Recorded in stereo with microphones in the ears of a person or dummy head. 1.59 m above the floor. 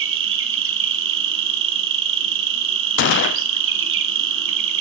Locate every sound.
0.0 s an insect: 65° right (ahead or behind), 0.7 m
3.0 s a gunshot: 55° left (ahead or behind), 0.7 m